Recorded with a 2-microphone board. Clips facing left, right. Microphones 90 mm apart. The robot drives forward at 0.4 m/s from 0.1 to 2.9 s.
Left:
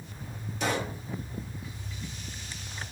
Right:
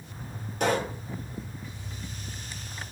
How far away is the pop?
About 2 m.